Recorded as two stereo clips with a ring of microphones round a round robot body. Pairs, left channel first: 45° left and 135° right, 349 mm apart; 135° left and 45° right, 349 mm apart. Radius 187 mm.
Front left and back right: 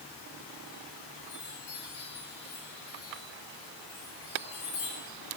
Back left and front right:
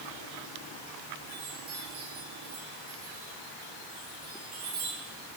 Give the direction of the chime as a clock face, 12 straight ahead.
12 o'clock.